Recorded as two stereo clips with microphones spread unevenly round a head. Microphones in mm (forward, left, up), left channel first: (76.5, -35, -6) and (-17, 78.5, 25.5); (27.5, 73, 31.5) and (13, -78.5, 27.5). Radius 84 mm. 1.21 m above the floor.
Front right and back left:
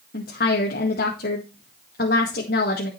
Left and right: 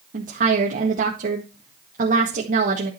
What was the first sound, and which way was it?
A woman speaking, 65° right.